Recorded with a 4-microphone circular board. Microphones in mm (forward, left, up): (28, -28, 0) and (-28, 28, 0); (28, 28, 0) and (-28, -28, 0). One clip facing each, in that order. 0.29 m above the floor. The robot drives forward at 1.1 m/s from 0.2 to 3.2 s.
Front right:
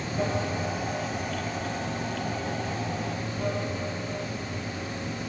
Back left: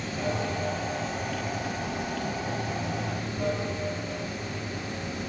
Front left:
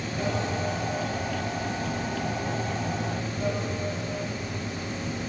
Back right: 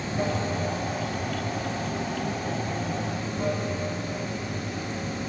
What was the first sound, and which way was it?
Running water, 85° right.